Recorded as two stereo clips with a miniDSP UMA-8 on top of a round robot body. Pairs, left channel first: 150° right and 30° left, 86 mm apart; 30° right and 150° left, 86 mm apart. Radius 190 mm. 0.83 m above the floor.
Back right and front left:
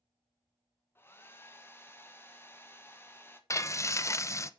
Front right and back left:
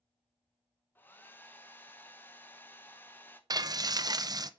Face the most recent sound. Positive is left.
turn(degrees=165)